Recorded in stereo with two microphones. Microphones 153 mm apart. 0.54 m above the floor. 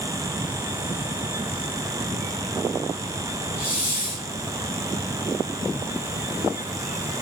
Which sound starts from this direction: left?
A hiss, at 3.6 s.